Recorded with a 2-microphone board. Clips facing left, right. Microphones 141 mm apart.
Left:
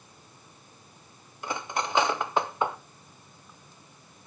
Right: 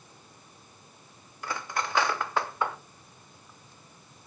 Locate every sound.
1.4 s cutlery clinking: 20° left (ahead or behind), 0.6 m